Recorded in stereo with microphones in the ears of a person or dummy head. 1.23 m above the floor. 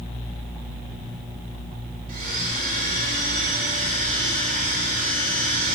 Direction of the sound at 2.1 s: 50° right (ahead or behind).